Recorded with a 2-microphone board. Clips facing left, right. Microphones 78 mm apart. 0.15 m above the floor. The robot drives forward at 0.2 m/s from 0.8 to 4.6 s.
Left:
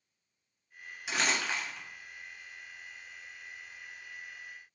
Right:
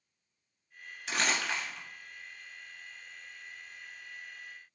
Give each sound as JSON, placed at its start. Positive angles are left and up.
{"t": 1.1, "sound": "crumpling", "side_deg": 10, "distance_m": 1.6}